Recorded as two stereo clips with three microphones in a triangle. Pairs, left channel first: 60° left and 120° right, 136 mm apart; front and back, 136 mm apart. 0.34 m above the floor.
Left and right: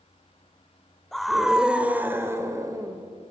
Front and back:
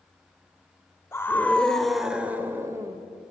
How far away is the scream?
About 1.5 m.